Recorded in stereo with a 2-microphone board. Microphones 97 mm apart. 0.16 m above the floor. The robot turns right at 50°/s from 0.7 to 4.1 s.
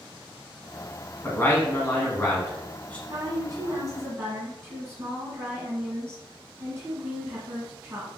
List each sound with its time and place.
1.2 s a man speaking: 20° left (ahead or behind), 1.1 m; by 3.0 s 15° left (ahead or behind), 1.1 m
3.1 s a woman speaking: 85° right, 1.8 m; by 8.1 s 35° right, 1.8 m